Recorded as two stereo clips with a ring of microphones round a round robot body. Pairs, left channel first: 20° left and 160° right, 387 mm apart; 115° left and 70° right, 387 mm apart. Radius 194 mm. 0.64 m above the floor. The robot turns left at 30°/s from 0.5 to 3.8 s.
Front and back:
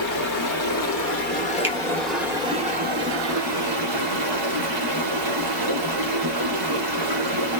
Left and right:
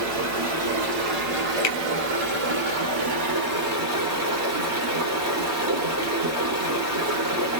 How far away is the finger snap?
About 1.2 m.